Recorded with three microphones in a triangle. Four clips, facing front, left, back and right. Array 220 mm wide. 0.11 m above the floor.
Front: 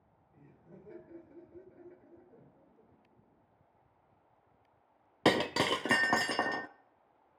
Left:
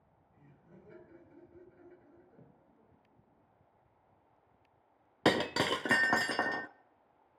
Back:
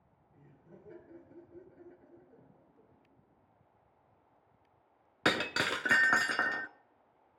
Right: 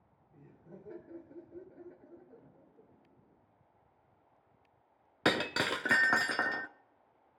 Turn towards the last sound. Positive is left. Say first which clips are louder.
# left 2 dB, front 4 dB
turn(degrees=25)